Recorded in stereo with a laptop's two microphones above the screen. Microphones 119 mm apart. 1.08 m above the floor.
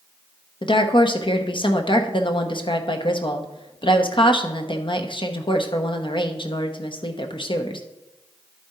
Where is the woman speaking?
45° left (ahead or behind), 1.0 m.